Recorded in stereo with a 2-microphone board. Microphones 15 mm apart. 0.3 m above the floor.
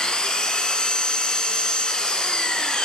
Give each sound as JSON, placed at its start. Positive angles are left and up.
{"t": 0.0, "sound": "an engine running", "side_deg": 80, "distance_m": 1.2}